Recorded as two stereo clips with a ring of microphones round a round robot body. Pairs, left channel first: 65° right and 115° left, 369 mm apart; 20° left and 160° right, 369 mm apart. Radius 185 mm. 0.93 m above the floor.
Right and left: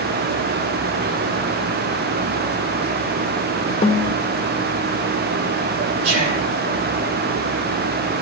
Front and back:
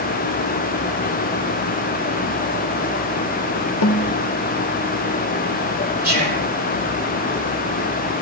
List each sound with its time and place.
3.8 s a snare drum: straight ahead, 1.1 m
6.0 s whispering: 135° left, 6.5 m